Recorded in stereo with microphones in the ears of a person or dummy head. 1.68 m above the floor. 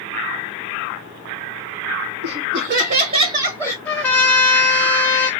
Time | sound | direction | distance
2.2 | laughter | 65° right (ahead or behind) | 1.2 m
3.9 | a trumpet | 10° left (ahead or behind) | 0.6 m